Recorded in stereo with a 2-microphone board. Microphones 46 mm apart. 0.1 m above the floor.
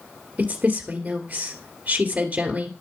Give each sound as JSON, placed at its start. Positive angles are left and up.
{"t": 0.4, "sound": "a woman speaking", "side_deg": -25, "distance_m": 2.0}